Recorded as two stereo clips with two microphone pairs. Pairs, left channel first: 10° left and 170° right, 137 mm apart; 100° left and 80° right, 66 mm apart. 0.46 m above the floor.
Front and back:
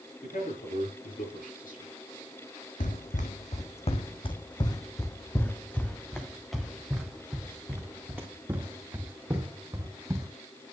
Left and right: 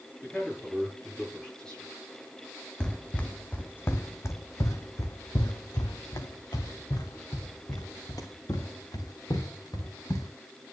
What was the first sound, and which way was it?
A man speaking, 20° left.